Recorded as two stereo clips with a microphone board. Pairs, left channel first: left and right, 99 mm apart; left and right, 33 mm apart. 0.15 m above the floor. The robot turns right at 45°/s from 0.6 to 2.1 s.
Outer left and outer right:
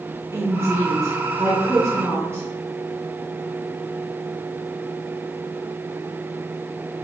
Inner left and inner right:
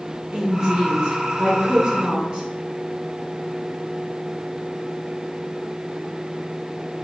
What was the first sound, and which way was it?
A woman speaking, 125° right.